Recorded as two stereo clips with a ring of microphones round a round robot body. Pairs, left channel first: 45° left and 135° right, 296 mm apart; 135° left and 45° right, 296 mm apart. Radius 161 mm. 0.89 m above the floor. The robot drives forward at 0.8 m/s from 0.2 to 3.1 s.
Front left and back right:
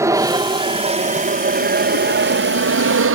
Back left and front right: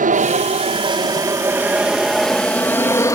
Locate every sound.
0.0 s an aircraft: 65° right; by 3.1 s 150° right